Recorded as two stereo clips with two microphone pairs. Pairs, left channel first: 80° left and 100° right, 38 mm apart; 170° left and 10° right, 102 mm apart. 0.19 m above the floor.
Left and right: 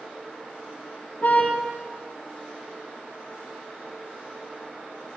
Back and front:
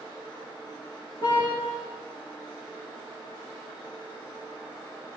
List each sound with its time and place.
1.2 s a car horn: 125° left, 7 m